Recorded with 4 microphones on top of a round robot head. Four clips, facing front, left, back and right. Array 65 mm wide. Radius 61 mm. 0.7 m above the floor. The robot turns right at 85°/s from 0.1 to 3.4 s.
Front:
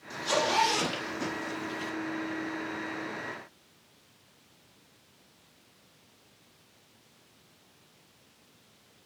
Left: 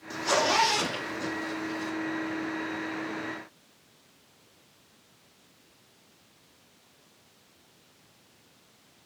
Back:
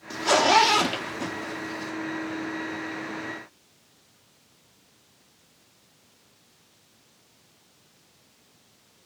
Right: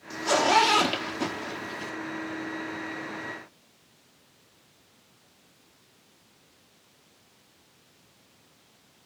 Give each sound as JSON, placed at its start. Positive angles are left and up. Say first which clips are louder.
{"t": 0.1, "sound": "a zipper", "louder": "right 3 dB, back 8 dB", "azimuth_deg": 170, "distance_m": 2.0}